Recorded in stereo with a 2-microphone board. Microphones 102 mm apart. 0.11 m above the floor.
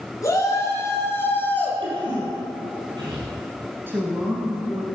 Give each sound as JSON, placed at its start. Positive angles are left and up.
{"t": 0.2, "sound": "a shout", "side_deg": 30, "distance_m": 1.8}
{"t": 1.8, "sound": "a cough", "side_deg": -50, "distance_m": 4.0}
{"t": 3.9, "sound": "a woman speaking", "side_deg": -20, "distance_m": 1.5}